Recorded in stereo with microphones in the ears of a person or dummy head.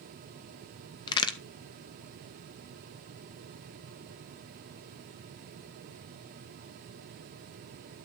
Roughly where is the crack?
Left.